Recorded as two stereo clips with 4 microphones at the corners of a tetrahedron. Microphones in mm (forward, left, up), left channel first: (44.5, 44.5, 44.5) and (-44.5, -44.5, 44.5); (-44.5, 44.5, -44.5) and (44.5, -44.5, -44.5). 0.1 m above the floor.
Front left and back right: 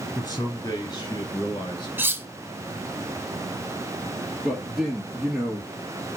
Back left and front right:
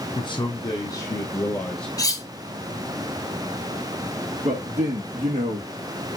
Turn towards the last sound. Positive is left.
turn(degrees=-50)